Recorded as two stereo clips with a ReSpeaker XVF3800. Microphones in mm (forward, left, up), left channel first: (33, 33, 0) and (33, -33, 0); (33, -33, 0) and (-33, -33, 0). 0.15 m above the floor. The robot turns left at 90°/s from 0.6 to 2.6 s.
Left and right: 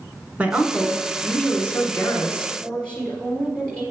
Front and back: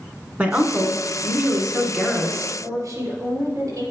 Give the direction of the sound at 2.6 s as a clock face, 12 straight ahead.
6 o'clock.